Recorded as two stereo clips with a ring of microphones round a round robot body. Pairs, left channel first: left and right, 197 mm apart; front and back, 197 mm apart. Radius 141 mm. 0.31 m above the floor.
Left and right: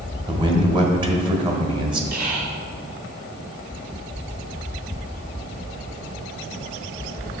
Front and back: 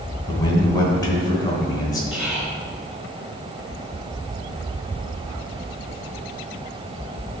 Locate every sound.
0.3 s a man speaking: 55° right, 1.2 m
2.1 s whispering: 95° right, 1.3 m